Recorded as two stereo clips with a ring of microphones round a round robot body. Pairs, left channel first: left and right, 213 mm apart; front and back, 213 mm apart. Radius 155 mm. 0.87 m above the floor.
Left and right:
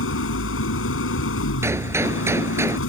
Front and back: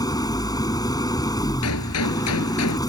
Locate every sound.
0.0 s an engine running: 75° left
1.6 s a gunshot: 10° right